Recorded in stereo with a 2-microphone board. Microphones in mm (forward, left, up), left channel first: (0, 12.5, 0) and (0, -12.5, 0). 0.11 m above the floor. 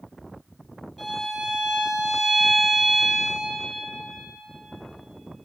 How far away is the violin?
About 1.9 m.